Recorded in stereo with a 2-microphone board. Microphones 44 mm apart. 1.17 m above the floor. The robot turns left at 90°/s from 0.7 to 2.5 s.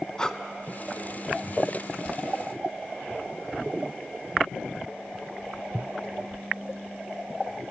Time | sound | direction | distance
0.2 | breathing | 15° left (ahead or behind) | 0.7 m